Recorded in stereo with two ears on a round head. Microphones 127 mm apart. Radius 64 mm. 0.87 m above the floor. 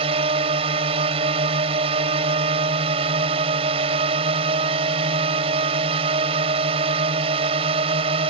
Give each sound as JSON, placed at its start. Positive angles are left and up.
{"t": 0.0, "sound": "a drone", "side_deg": -40}